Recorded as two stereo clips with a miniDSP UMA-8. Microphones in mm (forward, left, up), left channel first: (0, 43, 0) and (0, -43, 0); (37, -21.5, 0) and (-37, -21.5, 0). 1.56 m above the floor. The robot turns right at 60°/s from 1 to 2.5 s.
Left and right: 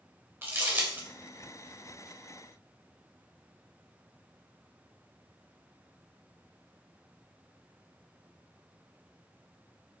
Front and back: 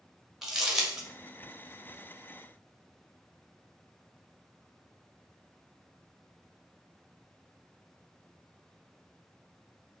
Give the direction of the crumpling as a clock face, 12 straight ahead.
3 o'clock.